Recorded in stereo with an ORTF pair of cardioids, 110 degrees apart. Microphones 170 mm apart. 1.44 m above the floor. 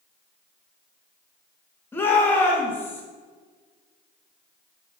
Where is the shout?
10° left, 1.7 m.